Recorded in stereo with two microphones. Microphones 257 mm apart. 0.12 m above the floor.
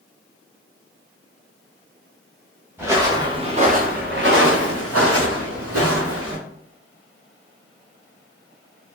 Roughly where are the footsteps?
Centre.